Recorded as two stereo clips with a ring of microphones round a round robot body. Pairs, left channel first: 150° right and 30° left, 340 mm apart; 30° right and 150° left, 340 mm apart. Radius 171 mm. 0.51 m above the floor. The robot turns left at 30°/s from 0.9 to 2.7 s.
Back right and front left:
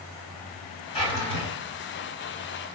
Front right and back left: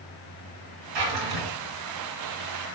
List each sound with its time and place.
0.9 s a drawer: 135° left, 1.0 m; by 1.5 s 120° left, 1.0 m